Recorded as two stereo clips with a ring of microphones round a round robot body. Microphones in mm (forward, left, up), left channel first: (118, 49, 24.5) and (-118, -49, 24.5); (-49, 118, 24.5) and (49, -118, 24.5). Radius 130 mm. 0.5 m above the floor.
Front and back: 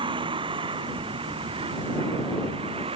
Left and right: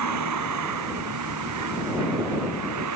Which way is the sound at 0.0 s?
85° right.